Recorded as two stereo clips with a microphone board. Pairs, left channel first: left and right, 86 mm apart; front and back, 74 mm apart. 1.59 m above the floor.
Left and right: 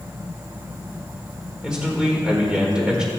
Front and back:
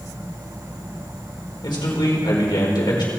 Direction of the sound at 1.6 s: 10° right.